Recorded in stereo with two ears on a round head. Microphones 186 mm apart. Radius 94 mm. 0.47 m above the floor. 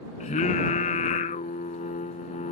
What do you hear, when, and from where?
0.2 s singing: 35° left (ahead or behind)